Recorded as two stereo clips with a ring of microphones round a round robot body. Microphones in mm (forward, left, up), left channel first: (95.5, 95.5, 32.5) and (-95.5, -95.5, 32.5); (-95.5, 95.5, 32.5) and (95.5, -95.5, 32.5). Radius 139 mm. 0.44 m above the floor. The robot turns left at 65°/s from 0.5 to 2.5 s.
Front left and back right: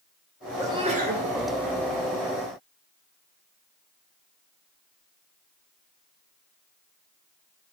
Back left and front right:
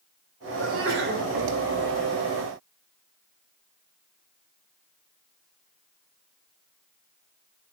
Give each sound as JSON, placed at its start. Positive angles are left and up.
{"t": 0.6, "sound": "a sneeze", "azimuth_deg": -55, "distance_m": 1.9}